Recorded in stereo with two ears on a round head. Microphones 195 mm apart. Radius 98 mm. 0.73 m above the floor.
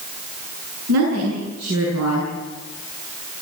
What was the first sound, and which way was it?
A woman speaking, 80° right.